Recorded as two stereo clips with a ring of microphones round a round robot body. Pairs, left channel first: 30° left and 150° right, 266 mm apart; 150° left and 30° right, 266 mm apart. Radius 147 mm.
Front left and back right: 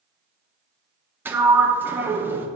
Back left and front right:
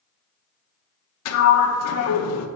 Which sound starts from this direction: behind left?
A sliding door, at 1.2 s.